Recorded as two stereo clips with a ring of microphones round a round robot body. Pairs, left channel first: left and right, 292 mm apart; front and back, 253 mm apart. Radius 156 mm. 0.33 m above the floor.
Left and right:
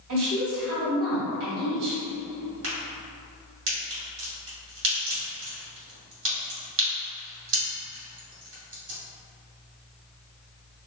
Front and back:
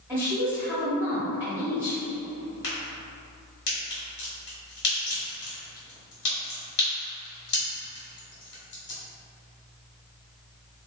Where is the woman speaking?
100° right, 1.7 m.